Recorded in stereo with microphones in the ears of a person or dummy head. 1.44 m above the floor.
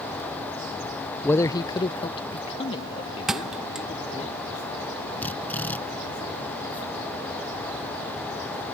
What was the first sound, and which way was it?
A man speaking, 10° left (ahead or behind).